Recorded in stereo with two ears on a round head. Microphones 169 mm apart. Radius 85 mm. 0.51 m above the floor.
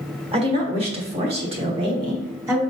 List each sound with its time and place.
0.3 s a woman speaking: 30° right (ahead or behind), 1.7 m; by 2.6 s 15° right (ahead or behind), 1.0 m